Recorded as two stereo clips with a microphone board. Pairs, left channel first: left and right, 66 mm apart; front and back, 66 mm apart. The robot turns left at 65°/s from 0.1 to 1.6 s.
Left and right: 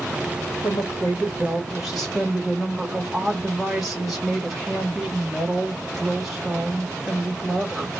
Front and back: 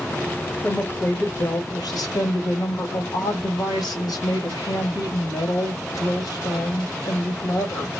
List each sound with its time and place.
0.6 s a woman speaking: 60° left, 2.5 m; by 7.9 s straight ahead, 2.5 m